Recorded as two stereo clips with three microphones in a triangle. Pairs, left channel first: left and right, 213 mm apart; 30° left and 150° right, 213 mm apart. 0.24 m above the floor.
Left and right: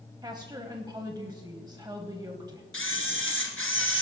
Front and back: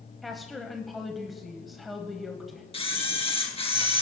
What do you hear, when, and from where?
0.2 s a woman speaking: 60° right, 1.1 m
2.7 s a camera shutter: 90° left, 1.9 m